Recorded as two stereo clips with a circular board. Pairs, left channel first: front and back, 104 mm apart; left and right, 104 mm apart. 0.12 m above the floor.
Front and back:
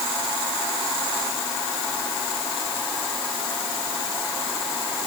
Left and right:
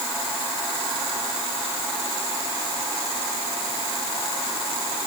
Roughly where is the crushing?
No crushing in this recording.